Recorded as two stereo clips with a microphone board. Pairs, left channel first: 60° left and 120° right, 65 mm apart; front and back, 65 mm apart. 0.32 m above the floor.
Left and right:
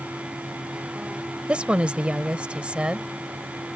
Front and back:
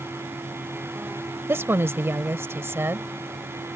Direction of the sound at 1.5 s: Straight behind.